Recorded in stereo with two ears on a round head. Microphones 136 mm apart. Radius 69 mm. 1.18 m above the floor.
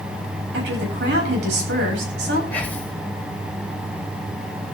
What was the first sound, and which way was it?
A woman speaking, 80° right.